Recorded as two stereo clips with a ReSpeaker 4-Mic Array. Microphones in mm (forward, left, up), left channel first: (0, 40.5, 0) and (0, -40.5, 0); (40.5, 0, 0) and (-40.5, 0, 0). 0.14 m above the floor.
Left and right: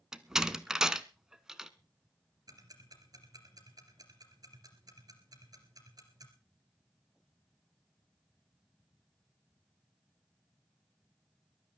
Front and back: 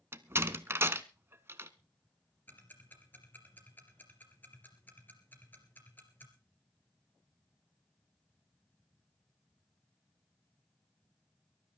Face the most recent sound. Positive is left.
turn(degrees=-65)